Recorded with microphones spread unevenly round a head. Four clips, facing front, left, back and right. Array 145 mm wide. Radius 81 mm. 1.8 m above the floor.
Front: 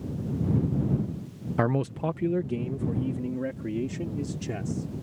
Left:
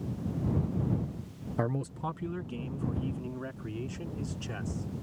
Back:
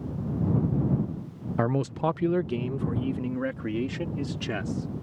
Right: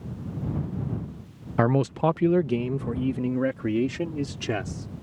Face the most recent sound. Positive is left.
turn(degrees=-105)